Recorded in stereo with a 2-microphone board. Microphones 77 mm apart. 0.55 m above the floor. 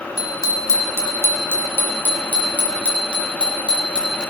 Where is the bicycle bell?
50° left (ahead or behind), 3.5 m; by 4.2 s 10° left (ahead or behind), 7.5 m.